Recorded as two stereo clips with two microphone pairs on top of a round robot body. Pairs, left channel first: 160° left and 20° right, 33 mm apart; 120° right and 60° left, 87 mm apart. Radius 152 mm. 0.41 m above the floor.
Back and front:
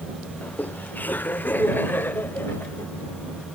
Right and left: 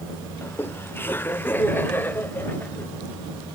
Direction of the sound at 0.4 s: 175° right.